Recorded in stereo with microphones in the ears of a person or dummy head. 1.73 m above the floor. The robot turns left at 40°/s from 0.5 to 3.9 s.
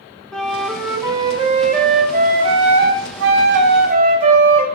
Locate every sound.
0.3 s a flute: 5° left, 0.8 m; by 4.7 s 135° right, 0.8 m